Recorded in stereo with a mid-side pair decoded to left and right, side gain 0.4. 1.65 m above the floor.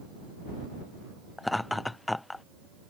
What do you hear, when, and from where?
1.4 s laughter: 15° left